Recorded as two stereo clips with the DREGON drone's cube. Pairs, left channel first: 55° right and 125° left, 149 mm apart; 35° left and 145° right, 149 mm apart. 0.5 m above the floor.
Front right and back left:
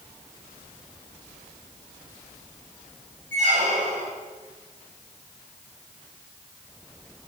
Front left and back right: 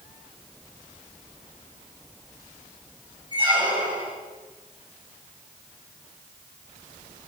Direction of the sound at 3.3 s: 155° left.